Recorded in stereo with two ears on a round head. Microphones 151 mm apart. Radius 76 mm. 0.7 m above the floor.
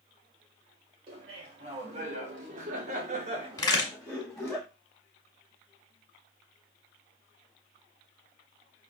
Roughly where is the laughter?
Right.